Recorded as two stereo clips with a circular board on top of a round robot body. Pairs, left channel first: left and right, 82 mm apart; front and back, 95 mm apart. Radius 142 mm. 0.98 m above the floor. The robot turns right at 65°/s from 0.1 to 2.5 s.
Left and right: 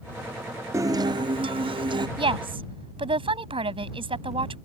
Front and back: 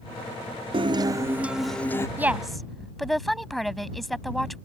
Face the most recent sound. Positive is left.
turn(degrees=-90)